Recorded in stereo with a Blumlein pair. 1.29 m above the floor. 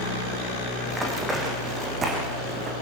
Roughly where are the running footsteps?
Ahead.